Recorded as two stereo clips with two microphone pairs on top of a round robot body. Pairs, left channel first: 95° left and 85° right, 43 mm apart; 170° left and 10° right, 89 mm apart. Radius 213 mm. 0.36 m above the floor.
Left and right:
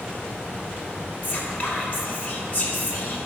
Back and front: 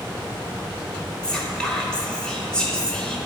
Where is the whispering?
100° left, 1.9 m.